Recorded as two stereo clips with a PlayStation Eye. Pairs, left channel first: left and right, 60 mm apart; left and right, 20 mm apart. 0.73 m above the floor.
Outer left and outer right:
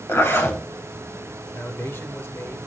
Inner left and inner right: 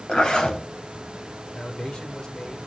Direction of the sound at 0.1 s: 45° left (ahead or behind).